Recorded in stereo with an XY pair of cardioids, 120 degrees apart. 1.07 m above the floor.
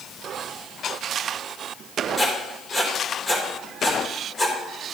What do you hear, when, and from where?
2.2 s writing: 30° left, 3.5 m